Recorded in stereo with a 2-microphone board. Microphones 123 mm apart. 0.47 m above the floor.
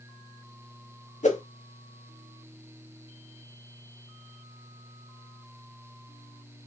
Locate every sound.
1.2 s a whoosh: 80° left, 0.8 m